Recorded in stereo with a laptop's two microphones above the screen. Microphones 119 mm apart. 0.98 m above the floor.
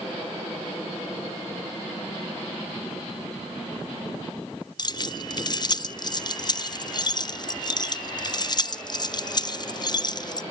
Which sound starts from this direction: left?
Keys jangling, at 4.8 s.